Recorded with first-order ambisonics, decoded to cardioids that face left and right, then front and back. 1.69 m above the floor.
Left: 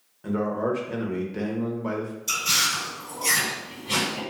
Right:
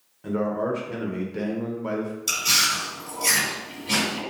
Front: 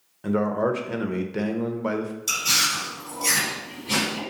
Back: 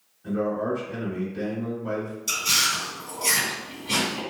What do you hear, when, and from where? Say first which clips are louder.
0.2 s a man speaking: even, front 3 dB; 5° left, 0.5 m
2.3 s chewing: right 2 dB, front 1 dB; 65° right, 1.6 m